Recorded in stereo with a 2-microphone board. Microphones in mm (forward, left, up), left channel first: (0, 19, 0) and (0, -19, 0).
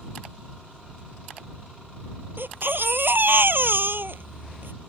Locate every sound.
2.4 s a baby crying: 70° right (ahead or behind)